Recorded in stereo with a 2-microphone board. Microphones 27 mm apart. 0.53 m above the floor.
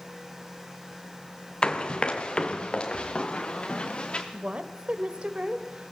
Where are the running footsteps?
30° left (ahead or behind), 1.7 m; by 4.2 s 35° left (ahead or behind), 3.5 m.